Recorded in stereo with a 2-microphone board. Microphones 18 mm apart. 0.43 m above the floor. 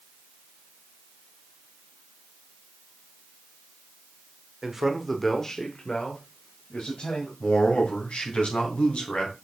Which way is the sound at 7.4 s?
70° left (ahead or behind).